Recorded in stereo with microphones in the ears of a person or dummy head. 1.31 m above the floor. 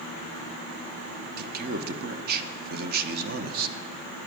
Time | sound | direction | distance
1.4 | a man speaking | 55° right (ahead or behind) | 1.0 m